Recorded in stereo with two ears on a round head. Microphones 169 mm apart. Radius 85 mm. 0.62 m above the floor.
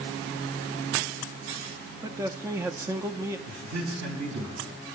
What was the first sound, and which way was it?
A man speaking, 15° right (ahead or behind).